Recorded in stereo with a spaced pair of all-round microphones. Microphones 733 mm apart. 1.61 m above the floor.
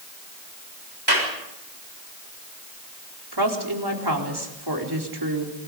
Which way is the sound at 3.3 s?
35° right (ahead or behind).